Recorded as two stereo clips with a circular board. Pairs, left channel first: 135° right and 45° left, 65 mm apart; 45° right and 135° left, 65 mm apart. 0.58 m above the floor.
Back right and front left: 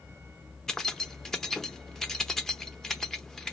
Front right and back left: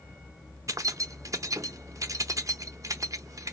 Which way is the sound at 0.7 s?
145° left.